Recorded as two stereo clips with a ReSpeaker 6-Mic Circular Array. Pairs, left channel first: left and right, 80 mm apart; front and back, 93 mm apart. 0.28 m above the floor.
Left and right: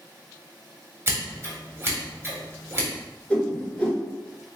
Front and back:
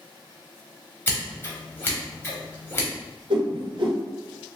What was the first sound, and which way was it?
Scissors, 50° right.